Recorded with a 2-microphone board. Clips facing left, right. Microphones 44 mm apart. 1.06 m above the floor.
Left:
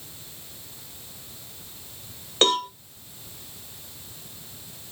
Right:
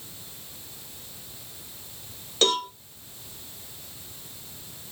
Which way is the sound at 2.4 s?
40° left (ahead or behind).